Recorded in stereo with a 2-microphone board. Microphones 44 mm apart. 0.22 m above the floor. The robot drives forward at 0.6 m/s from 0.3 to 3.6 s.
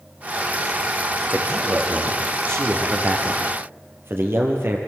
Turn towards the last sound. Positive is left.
turn(degrees=-55)  # may be behind; listen again after turning